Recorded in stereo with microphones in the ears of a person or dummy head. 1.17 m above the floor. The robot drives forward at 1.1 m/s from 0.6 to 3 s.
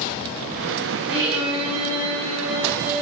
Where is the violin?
30° right (ahead or behind), 6.5 m; by 3.0 s 45° right (ahead or behind), 5 m.